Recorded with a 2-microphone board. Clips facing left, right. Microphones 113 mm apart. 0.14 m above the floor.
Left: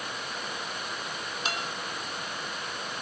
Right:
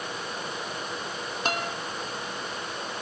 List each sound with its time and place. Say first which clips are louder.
1.4 s a guitar: right 6 dB; 45° right (ahead or behind), 3.5 m